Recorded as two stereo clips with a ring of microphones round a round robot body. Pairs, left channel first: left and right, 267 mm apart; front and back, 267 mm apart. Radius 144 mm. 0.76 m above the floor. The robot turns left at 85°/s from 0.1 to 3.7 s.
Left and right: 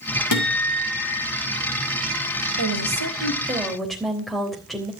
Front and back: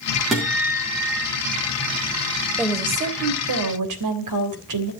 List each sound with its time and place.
0.3 s a guitar: 90° left, 3.5 m; by 1.3 s 10° left, 3.5 m
2.6 s a woman speaking: 85° right, 3.5 m; by 4.9 s straight behind, 3.5 m